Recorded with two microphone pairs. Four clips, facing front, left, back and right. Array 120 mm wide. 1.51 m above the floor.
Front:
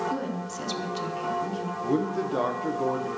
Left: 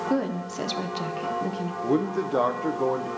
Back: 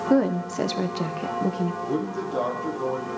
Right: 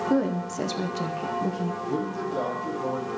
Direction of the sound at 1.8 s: 85° left.